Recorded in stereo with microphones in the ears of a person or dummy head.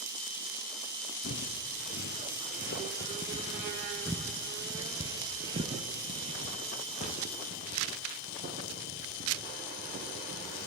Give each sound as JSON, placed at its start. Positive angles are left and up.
{"t": 1.2, "sound": "footsteps", "side_deg": 50, "distance_m": 3.0}